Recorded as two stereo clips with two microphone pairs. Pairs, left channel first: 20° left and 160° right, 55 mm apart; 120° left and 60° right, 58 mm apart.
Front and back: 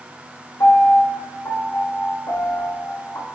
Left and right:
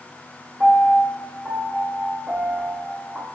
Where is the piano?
10° left, 1.3 m.